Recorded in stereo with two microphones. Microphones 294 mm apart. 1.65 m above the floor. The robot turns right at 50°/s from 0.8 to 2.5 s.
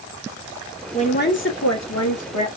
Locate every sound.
0.9 s a woman speaking: 20° left, 1.5 m; by 2.5 s 95° left, 1.5 m